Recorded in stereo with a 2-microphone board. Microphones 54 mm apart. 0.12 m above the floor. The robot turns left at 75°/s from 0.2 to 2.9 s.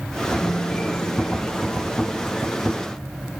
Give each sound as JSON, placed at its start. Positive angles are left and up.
{"t": 0.4, "sound": "a piano", "azimuth_deg": 150, "distance_m": 5.0}